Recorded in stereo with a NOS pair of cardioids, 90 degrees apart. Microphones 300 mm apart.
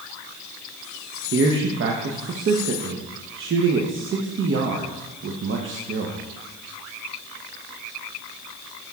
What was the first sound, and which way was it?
A man speaking, 45° right.